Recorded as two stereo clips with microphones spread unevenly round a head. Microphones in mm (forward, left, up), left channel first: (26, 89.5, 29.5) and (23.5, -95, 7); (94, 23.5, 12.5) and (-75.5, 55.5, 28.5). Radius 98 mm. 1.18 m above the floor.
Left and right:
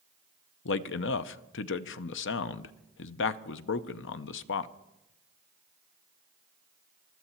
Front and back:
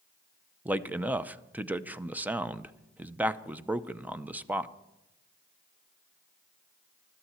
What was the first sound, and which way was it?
A man speaking, 85° left.